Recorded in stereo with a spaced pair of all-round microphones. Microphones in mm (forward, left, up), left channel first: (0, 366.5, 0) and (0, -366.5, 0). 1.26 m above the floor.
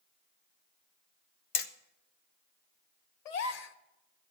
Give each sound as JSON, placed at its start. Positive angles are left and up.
{"t": 1.6, "sound": "hammering", "side_deg": 50, "distance_m": 0.7}
{"t": 3.2, "sound": "a gasp", "side_deg": 65, "distance_m": 0.7}